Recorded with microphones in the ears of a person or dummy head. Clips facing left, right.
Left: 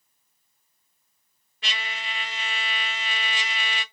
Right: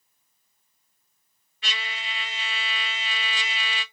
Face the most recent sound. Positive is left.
turn(degrees=35)  # may be behind; listen again after turning